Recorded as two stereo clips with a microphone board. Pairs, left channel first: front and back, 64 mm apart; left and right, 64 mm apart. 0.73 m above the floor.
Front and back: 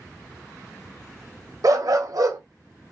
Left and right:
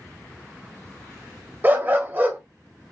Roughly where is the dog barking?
Behind right.